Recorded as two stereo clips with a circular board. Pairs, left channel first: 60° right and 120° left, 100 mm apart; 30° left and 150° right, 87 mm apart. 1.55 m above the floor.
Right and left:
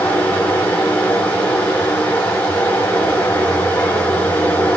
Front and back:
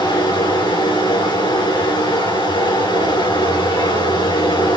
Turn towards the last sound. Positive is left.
turn(degrees=10)